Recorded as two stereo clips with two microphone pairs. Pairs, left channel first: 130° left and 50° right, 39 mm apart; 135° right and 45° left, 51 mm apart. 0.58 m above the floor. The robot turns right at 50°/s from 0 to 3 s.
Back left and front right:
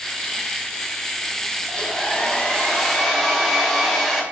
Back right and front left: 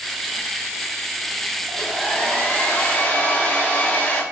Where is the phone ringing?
I don't hear a phone ringing.